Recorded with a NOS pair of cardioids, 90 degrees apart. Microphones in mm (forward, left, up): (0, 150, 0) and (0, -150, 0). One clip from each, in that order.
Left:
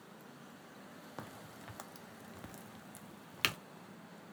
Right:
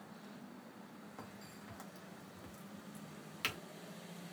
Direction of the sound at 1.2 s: 40° left.